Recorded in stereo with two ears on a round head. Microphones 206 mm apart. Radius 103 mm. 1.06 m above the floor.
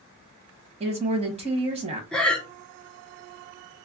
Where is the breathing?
5° left (ahead or behind), 0.6 m.